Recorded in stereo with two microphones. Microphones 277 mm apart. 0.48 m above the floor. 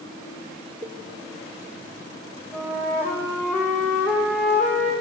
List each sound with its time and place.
0.8 s a cowbell: 25° right (ahead or behind), 1.1 m
2.5 s a flute: 5° left (ahead or behind), 4 m